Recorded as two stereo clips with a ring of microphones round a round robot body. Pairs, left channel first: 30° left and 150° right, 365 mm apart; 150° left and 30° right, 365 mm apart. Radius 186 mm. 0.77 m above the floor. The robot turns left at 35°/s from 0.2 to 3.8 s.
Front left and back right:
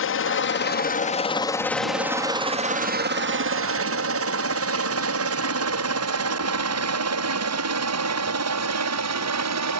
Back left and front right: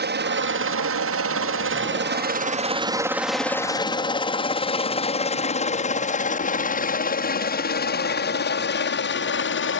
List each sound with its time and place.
0.0 s a helicopter: 10° left; by 9.8 s 165° right